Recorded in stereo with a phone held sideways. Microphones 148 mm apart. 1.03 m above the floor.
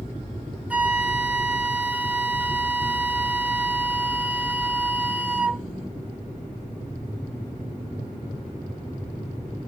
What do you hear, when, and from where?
0.7 s a flute: 10° right (ahead or behind), 0.6 m